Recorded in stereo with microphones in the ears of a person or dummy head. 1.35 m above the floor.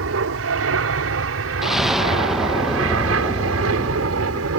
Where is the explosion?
Centre (ahead or behind).